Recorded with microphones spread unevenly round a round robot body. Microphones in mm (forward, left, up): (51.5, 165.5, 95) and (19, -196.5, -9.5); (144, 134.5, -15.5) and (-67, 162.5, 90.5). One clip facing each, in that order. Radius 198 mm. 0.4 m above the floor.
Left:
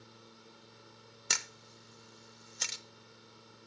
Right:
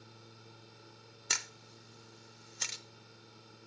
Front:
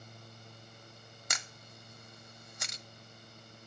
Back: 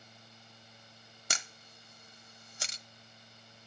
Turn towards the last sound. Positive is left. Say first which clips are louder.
# left 1 dB, back 2 dB
turn(degrees=100)